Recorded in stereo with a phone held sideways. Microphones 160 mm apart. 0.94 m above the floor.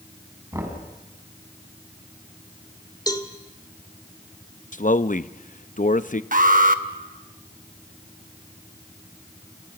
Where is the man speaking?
55° left (ahead or behind), 0.7 m.